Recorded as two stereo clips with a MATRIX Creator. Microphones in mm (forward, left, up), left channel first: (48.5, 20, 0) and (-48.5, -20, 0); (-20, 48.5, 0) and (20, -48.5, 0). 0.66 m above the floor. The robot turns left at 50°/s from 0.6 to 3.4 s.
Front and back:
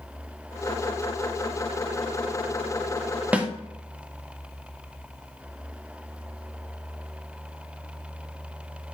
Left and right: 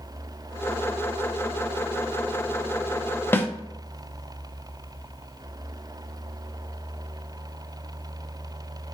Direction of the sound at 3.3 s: 145° left.